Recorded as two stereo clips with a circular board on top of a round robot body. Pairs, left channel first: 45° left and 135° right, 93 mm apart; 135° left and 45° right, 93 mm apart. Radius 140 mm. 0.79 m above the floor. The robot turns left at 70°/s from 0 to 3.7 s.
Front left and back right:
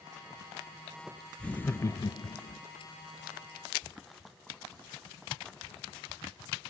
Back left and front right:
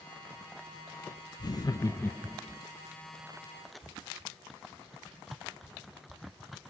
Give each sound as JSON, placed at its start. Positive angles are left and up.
{"t": 1.4, "sound": "laughter", "azimuth_deg": 125, "distance_m": 0.7}